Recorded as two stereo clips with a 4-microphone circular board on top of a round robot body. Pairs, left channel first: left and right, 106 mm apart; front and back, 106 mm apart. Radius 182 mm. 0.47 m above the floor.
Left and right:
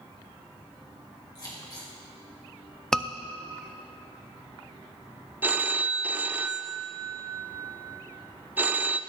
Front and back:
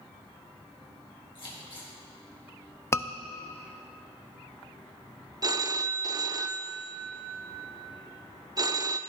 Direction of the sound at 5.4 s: 155° right.